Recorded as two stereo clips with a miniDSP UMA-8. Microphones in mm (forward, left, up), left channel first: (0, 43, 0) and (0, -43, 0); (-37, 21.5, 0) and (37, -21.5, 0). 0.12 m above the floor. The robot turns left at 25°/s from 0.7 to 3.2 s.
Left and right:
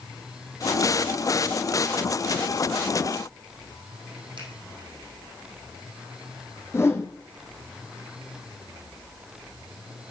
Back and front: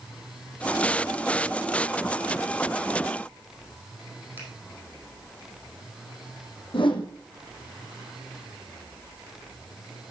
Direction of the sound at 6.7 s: 150° left.